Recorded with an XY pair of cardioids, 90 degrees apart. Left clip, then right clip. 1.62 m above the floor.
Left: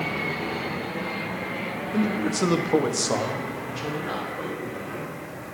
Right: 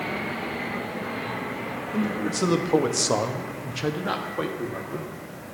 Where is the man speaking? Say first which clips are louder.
Left 2 dB; 20° left, 1.1 m; by 5.1 s 80° right, 1.6 m.